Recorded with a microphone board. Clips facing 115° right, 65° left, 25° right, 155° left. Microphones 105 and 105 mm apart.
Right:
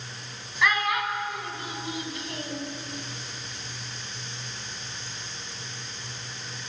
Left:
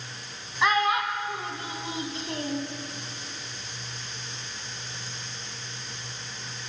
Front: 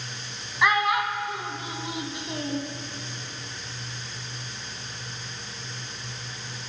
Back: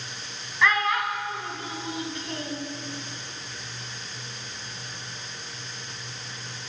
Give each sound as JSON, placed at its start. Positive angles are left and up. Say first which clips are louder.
{"t": 0.6, "sound": "a child speaking", "louder": "left 2 dB, front 1 dB", "azimuth_deg": 35, "distance_m": 1.0}